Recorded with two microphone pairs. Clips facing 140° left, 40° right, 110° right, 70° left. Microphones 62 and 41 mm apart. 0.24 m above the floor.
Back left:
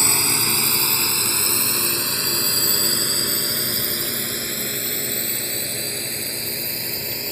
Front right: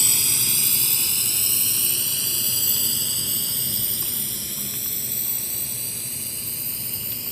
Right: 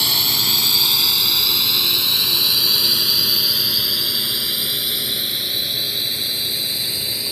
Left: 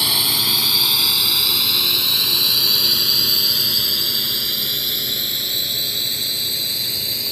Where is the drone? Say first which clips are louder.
Back left 8 dB, even; 150° left; by 7.3 s 165° left.